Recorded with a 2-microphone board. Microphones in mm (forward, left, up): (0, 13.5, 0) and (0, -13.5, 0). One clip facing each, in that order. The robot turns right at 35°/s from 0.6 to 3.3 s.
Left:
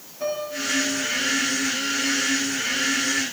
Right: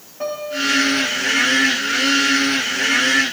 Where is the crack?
No crack in this recording.